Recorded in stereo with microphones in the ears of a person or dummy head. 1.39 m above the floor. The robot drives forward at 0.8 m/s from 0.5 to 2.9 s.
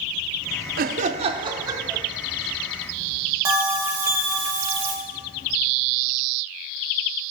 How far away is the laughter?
About 0.6 m.